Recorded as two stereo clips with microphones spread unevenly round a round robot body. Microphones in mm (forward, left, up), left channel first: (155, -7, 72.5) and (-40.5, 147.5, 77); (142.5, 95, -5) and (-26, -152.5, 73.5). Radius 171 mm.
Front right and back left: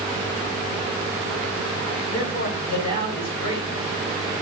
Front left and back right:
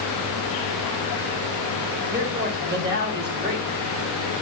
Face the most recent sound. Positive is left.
turn(degrees=-65)